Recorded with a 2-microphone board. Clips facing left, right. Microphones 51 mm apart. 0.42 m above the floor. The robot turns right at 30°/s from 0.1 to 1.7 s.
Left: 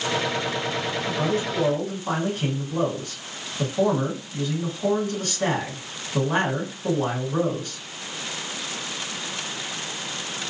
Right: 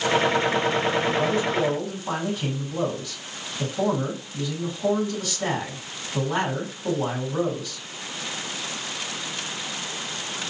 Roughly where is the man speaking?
Left.